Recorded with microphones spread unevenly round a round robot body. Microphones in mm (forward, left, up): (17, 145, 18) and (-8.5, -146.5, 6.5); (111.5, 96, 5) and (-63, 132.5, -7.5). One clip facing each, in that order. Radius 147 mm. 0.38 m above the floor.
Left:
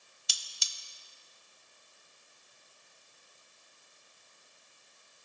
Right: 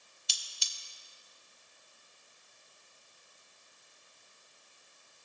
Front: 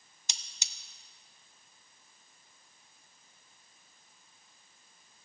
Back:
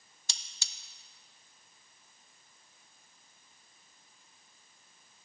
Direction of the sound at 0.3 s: 60° left.